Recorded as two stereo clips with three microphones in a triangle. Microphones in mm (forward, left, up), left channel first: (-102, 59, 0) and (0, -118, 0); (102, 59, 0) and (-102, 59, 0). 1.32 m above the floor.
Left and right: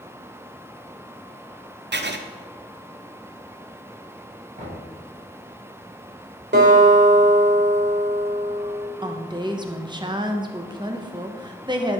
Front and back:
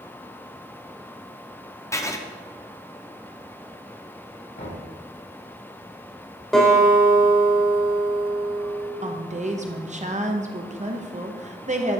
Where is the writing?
70° right, 0.5 m.